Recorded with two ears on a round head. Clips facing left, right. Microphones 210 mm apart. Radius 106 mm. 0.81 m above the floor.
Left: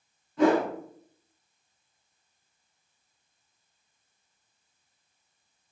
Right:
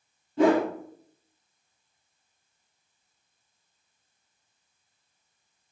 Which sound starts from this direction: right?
A whoosh, at 0.4 s.